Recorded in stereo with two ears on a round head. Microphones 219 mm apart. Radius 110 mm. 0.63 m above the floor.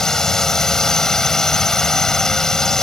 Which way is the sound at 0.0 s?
Centre (ahead or behind).